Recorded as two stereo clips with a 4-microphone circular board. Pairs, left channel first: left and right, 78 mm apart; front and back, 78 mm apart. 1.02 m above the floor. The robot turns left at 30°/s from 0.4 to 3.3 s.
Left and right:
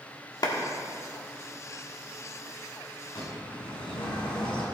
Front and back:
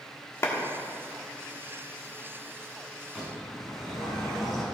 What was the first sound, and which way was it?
A clap, 55° left.